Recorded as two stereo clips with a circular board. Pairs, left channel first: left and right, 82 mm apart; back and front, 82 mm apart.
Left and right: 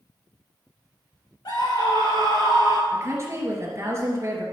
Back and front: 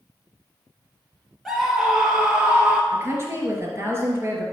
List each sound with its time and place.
1.4 s a scream: 90° left, 2.5 m; by 2.8 s 70° left, 2.5 m
2.9 s a woman speaking: 45° right, 2.5 m